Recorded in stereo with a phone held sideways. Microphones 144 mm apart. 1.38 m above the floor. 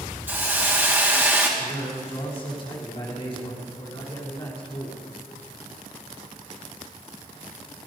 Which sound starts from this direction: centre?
A hiss, at 0.3 s.